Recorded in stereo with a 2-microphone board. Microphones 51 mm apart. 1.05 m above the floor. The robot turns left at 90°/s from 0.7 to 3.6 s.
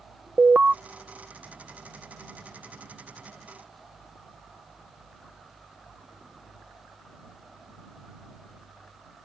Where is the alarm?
25° right (ahead or behind).